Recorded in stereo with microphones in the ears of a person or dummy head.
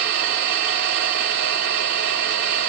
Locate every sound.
0.0 s an engine running: 60° right (ahead or behind), 1.5 m